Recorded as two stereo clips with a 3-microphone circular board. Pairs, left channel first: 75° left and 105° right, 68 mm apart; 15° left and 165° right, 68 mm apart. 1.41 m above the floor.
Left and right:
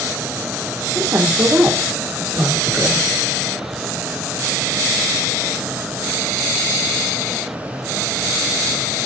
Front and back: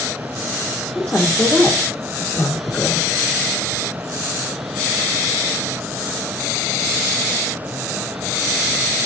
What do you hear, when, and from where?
0.9 s a woman speaking: 50° right, 1.3 m